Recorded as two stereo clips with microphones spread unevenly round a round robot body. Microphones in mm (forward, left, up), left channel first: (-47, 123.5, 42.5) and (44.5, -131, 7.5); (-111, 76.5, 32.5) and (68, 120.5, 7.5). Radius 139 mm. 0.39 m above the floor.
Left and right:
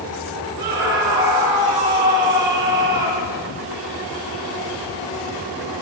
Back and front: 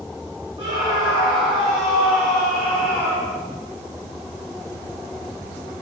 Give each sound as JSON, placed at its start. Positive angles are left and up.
{"t": 0.6, "sound": "a scream", "azimuth_deg": -60, "distance_m": 5.0}